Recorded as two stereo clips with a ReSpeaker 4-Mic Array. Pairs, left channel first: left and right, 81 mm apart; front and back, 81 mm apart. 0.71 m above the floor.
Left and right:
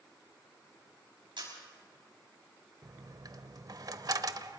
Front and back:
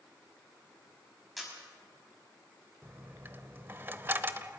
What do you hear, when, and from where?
1.4 s a camera shutter: 90° right, 6 m
2.8 s a dropped coin: 120° right, 0.8 m